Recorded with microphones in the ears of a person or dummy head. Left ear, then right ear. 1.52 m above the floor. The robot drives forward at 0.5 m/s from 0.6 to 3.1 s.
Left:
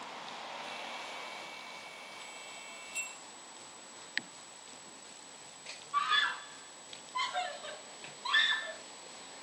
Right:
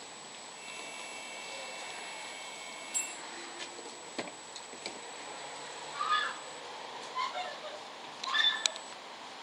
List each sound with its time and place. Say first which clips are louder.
2.9 s a bell: right 1 dB; 70° right (ahead or behind), 2 m
5.9 s a scream: left 2 dB; 30° left (ahead or behind), 2 m